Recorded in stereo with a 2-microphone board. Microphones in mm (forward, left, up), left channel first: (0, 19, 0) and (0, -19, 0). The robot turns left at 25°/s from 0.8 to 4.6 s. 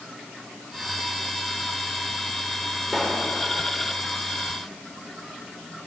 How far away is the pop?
About 7.5 m.